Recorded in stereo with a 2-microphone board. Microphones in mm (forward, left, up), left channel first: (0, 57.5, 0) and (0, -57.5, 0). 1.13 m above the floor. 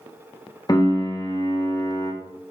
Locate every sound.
0.7 s a piano: 35° left (ahead or behind), 0.5 m